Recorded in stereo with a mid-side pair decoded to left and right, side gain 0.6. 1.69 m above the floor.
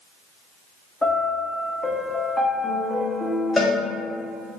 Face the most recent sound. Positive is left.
turn(degrees=10)